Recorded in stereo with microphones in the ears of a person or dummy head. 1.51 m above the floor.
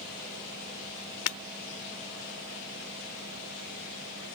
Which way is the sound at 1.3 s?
75° left (ahead or behind).